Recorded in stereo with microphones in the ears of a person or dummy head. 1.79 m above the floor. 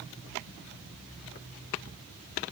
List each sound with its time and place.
Only background noise.